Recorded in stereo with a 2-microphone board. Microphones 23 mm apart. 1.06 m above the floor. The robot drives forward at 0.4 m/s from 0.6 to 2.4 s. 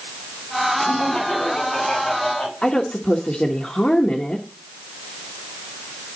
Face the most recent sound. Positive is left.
turn(degrees=45)  # may be behind; listen again after turning